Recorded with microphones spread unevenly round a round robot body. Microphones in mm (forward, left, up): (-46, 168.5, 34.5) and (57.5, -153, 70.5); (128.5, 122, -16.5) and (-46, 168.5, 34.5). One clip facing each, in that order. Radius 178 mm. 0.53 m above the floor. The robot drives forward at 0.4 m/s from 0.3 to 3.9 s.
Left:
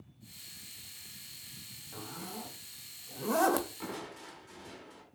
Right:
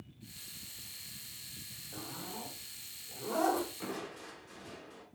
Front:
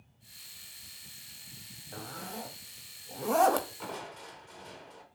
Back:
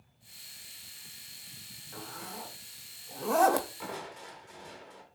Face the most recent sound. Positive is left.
turn(degrees=65)